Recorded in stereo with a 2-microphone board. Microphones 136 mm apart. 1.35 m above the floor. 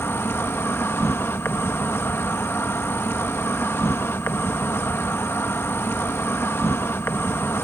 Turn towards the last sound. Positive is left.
turn(degrees=15)  # may be behind; listen again after turning